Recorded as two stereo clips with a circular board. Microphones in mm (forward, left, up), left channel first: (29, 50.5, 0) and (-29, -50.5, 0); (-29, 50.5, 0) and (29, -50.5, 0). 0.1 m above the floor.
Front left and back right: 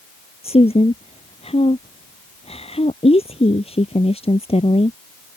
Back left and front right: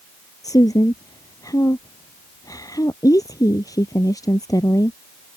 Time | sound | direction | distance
0.4 | a woman speaking | 65° left | ?